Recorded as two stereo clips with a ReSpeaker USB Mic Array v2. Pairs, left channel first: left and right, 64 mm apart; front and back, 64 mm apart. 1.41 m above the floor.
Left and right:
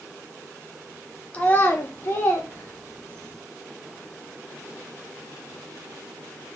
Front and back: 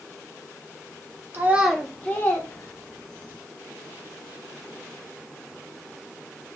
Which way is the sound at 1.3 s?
145° left.